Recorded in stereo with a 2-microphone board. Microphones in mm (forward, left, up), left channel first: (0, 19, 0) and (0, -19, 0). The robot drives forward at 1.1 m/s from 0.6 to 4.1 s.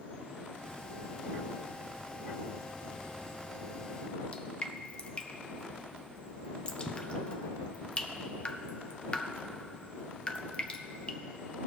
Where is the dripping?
30° left (ahead or behind), 0.7 m.